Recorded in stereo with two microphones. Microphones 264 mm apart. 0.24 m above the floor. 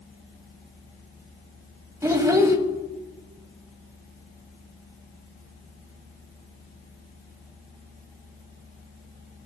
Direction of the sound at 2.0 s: 10° right (ahead or behind).